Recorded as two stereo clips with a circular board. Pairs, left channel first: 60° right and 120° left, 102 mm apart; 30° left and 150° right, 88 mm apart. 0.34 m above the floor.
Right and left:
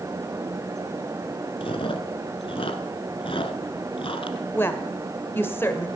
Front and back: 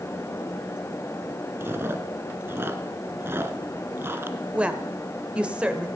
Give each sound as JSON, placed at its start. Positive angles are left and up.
{"t": 1.6, "sound": "chewing", "azimuth_deg": -85, "distance_m": 1.1}
{"t": 4.5, "sound": "a woman speaking", "azimuth_deg": -90, "distance_m": 1.3}